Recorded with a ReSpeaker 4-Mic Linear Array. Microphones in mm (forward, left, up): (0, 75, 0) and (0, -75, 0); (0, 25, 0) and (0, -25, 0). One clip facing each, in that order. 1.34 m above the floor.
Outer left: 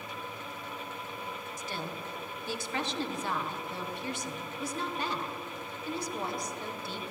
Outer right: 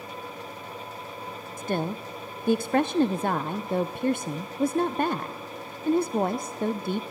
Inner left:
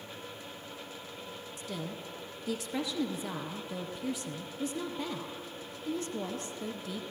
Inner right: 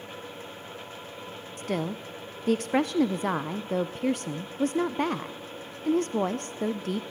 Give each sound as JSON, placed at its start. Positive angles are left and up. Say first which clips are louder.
{"t": 1.6, "sound": "a woman speaking", "louder": "outer right 13 dB, inner right 10 dB", "side_deg": -55, "distance_m": 0.5}